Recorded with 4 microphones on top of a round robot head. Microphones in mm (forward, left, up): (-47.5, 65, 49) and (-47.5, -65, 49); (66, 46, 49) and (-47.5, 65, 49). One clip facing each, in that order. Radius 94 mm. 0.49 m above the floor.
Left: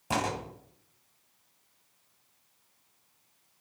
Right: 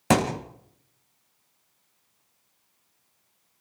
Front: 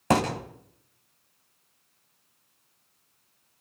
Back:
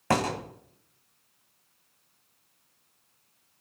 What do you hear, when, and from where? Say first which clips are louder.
0.1 s a thud: right 9 dB, front 3 dB; 85° right, 4 m